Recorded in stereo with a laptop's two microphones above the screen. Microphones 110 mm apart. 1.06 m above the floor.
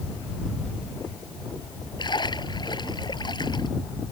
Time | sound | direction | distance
2.0 | a splash | 45° left (ahead or behind) | ?